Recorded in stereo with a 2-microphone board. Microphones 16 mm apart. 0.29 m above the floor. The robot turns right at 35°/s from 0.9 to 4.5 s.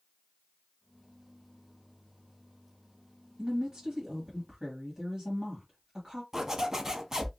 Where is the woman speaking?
100° right, 1.5 m; by 6.2 s 60° right, 1.5 m.